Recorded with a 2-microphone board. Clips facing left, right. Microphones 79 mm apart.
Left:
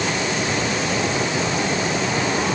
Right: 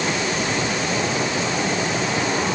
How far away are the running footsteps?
I don't hear running footsteps.